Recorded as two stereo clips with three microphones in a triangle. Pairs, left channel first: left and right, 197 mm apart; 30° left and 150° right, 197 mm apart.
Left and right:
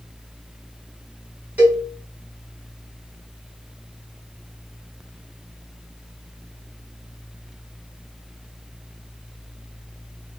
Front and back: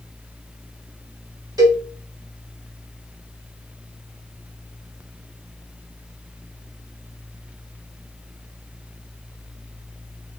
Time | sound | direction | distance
1.6 | a cowbell | 155° right | 1.3 m